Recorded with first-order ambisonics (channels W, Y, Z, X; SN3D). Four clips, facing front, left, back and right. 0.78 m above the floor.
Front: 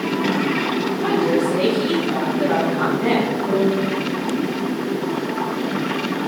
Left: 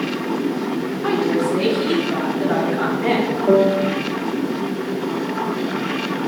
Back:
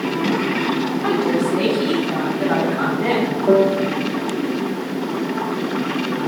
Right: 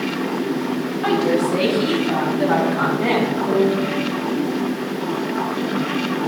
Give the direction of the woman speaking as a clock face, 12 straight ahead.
3 o'clock.